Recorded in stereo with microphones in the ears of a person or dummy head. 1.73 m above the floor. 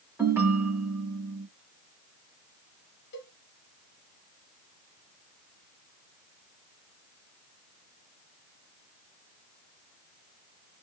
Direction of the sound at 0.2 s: 10° right (ahead or behind).